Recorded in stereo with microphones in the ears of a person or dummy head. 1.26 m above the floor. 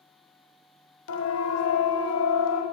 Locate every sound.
1.1 s a siren: 90° left, 4 m; by 2.6 s 80° left, 5 m